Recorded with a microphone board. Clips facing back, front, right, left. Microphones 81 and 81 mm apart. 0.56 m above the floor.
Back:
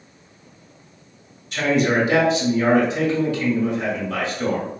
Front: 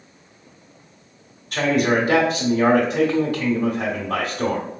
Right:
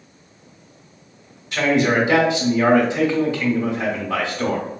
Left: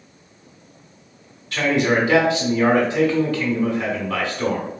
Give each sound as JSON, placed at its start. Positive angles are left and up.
{"t": 1.5, "sound": "a man speaking", "azimuth_deg": -20, "distance_m": 1.6}